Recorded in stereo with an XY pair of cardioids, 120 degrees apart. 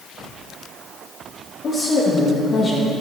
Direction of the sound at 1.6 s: 45° left.